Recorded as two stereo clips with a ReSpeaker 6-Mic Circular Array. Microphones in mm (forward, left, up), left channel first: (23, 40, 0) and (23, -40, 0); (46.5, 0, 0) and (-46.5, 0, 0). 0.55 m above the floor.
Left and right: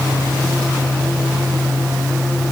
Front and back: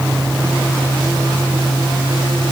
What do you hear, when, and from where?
Only background noise.